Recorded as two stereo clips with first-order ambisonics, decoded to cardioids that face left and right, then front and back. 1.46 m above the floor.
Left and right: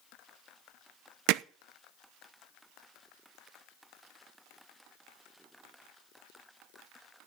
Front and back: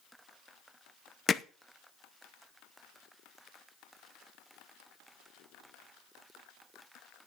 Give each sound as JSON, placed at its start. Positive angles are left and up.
{"t": 1.3, "sound": "hammering", "azimuth_deg": -70, "distance_m": 0.5}